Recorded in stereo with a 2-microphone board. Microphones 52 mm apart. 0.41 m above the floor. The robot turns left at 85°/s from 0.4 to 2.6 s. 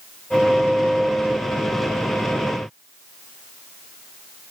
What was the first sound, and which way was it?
Only background noise.